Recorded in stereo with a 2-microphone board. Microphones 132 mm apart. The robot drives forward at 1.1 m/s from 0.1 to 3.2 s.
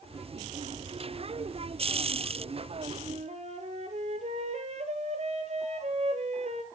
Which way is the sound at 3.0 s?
55° right (ahead or behind).